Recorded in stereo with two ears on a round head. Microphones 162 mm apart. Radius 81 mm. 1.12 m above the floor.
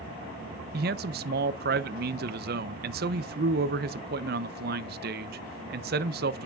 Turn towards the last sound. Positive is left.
turn(degrees=-55)  # may be behind; listen again after turning